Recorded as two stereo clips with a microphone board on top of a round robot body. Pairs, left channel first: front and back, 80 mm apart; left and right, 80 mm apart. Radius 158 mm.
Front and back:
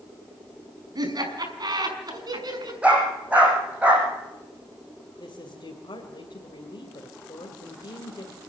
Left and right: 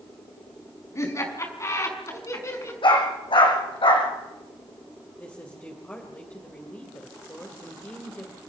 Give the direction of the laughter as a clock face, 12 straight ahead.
7 o'clock.